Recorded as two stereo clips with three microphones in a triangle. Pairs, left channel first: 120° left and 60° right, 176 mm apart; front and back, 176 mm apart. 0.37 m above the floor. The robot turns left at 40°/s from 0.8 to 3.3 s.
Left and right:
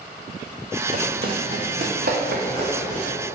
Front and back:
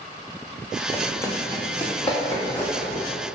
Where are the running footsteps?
75° right, 0.8 m; by 3.0 s 80° right, 1.8 m.